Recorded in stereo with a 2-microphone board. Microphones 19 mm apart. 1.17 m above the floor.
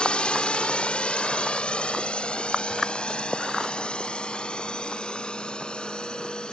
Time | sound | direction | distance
0.0 | a drone | 70° left (ahead or behind) | ?